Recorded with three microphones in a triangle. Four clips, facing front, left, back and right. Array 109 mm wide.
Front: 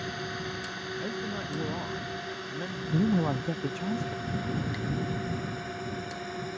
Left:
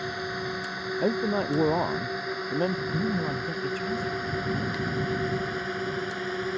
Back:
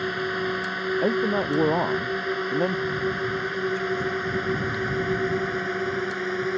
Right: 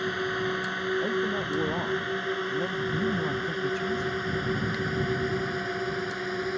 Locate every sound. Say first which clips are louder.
0.0 s a drone: right 3 dB, back 9 dB; 160° right; by 6.6 s straight behind
1.0 s a man speaking: left 2 dB, back 13 dB; 150° left
2.9 s a man speaking: even, even; 5° left